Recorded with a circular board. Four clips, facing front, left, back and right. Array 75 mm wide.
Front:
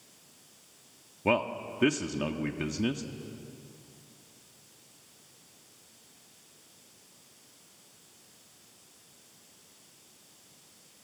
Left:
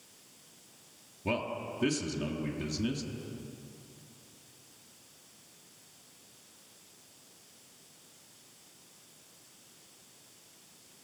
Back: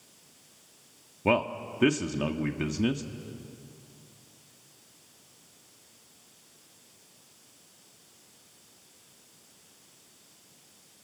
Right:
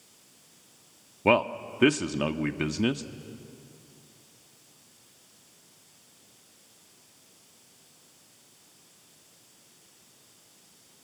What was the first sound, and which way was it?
A man speaking, 95° right.